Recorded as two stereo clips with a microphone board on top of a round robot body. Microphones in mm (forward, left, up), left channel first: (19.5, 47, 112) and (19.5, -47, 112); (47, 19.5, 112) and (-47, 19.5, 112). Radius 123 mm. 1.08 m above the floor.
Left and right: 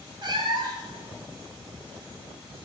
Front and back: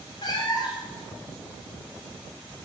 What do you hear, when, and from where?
0.2 s a cat meowing: 50° right, 1.6 m